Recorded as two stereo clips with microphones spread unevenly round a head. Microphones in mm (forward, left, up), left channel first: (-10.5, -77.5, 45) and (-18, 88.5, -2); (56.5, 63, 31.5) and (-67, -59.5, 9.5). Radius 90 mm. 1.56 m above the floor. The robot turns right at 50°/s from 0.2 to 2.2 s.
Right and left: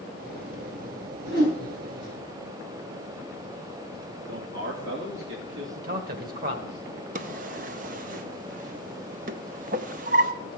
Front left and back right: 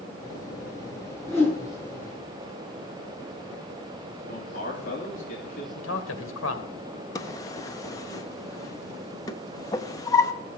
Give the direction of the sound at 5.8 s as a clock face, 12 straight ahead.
10 o'clock.